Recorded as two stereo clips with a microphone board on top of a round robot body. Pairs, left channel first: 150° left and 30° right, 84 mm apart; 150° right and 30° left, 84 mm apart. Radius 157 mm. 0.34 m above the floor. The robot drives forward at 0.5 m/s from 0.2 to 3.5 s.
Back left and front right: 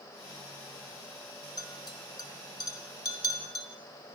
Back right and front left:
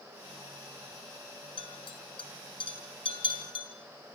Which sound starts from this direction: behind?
A clink, at 1.6 s.